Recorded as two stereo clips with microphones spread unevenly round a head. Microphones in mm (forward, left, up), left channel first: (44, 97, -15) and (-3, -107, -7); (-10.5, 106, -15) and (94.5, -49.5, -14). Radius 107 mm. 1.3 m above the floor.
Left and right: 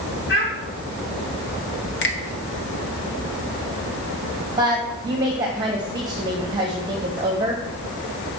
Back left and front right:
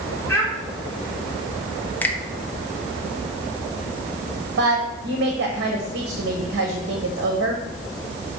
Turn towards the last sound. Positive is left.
turn(degrees=-35)